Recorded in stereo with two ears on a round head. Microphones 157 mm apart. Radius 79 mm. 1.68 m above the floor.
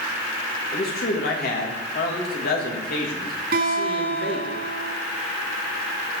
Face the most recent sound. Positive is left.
turn(degrees=-60)  # may be behind; listen again after turning